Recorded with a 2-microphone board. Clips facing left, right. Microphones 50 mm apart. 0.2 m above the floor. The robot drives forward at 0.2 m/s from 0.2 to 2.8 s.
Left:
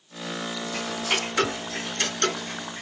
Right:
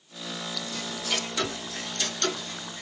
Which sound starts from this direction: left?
Ticking, at 0.7 s.